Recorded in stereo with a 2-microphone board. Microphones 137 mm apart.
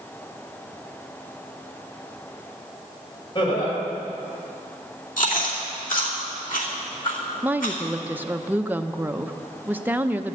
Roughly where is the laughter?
Left.